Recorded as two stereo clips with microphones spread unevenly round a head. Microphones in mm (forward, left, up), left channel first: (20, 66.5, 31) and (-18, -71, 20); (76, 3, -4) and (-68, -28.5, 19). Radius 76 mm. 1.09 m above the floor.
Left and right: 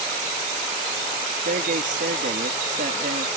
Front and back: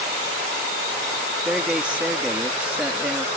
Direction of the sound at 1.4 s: 85° right.